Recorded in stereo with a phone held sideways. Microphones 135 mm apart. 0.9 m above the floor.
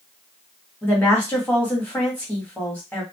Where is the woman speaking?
10° left (ahead or behind), 1.6 m.